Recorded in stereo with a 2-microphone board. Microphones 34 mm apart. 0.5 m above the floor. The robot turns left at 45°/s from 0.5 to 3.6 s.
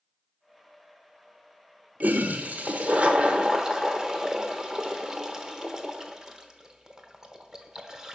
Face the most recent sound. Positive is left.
turn(degrees=-20)  # may be behind; listen again after turning